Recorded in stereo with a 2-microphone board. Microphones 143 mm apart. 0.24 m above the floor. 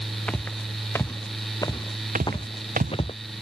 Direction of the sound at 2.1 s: 75° right (ahead or behind).